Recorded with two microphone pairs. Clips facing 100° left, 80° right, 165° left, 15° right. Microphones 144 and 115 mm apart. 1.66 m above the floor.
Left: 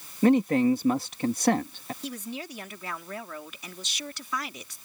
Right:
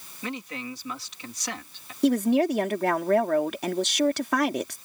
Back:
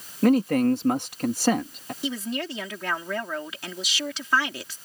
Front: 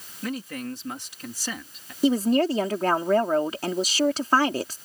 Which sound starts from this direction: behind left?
A man speaking, at 0.2 s.